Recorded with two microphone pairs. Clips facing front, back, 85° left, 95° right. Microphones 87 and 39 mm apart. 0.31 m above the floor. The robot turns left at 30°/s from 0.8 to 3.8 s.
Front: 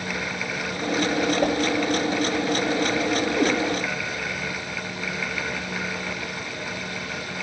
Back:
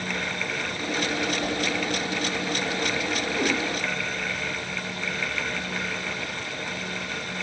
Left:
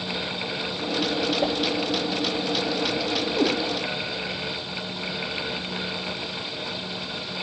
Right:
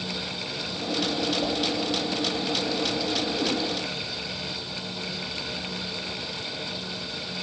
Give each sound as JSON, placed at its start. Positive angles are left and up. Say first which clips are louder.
{"t": 1.4, "sound": "a whoosh", "louder": "front 6 dB, left 3 dB", "azimuth_deg": 30, "distance_m": 2.5}
{"t": 3.4, "sound": "a cat meowing", "louder": "front 4 dB, left 8 dB", "azimuth_deg": 90, "distance_m": 5.5}